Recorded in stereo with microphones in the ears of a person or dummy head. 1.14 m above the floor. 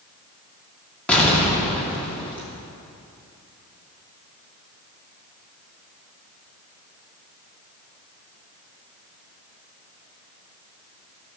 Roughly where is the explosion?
Centre.